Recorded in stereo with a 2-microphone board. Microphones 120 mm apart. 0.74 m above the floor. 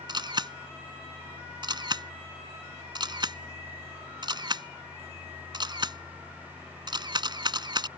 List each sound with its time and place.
0.1 s a camera shutter: 40° right (ahead or behind)